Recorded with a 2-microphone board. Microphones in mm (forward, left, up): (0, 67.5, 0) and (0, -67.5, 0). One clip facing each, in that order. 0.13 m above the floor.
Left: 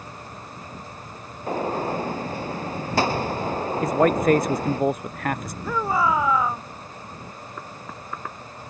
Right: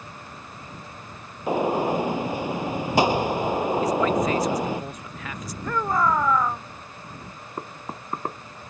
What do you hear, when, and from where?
1.5 s a gunshot: 15° right (ahead or behind)
3.8 s a man speaking: 55° left (ahead or behind)
5.6 s a shout: 5° left (ahead or behind)
7.6 s knocking: 40° right (ahead or behind)